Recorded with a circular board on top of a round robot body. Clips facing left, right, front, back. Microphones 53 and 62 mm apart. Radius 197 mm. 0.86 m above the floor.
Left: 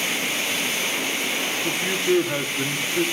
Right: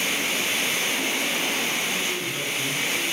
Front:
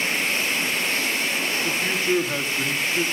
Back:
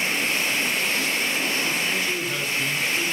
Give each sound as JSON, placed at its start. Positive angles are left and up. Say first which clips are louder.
{"t": 1.6, "sound": "a man speaking", "louder": "left 4 dB, front 2 dB", "azimuth_deg": 60, "distance_m": 1.6}